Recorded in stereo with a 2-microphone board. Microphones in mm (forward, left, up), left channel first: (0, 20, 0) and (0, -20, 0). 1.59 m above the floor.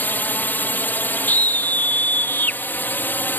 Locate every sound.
0.0 s a drone: 50° left (ahead or behind)
1.3 s a scream: 45° left (ahead or behind)